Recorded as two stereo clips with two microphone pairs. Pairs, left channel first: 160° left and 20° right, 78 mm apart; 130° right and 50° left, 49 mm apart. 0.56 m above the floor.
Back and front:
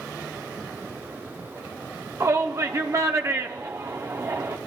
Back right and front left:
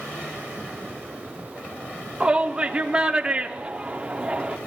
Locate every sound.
2.2 s a shout: 10° right, 0.8 m